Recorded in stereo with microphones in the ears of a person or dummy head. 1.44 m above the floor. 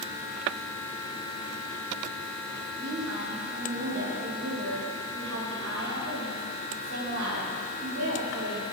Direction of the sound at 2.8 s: 85° right.